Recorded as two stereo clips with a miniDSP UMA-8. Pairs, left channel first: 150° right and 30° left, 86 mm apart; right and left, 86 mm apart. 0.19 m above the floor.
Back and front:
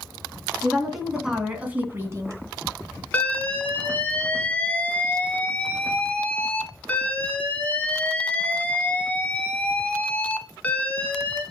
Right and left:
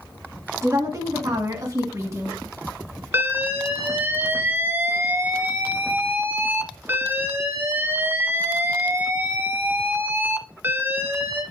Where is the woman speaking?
125° left, 2.5 m; by 2.3 s 55° left, 2 m.